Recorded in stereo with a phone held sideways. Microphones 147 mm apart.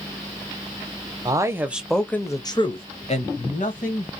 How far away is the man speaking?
About 0.7 m.